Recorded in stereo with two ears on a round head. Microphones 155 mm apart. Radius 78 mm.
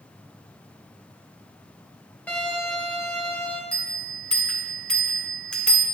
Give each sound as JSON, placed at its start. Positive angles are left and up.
{"t": 2.3, "sound": "a violin", "side_deg": 10, "distance_m": 1.0}
{"t": 3.7, "sound": "a bell", "side_deg": 5, "distance_m": 1.1}